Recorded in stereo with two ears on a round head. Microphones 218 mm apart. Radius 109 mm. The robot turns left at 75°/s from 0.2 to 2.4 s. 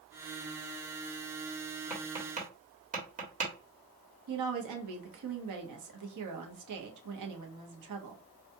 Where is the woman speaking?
85° right, 1.0 m.